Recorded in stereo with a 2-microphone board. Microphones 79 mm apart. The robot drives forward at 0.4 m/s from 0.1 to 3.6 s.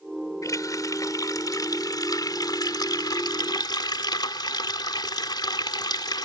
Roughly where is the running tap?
Left.